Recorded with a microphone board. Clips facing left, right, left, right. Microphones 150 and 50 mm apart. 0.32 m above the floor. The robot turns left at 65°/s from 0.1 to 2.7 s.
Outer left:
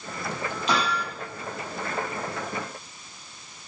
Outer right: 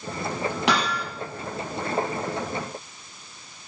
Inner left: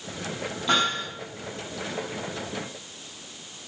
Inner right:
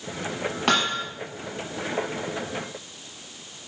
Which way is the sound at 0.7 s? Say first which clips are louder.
Even, even; 70° right (ahead or behind).